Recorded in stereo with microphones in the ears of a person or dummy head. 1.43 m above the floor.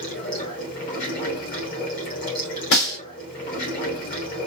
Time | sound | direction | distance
0.0 | running water | 45° left (ahead or behind) | 1.7 m
2.7 | a snare drum | 70° left (ahead or behind) | 2.5 m